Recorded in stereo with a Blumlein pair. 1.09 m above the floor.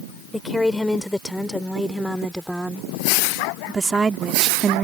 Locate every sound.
0.3 s a woman speaking: 5° left; by 4.8 s 25° right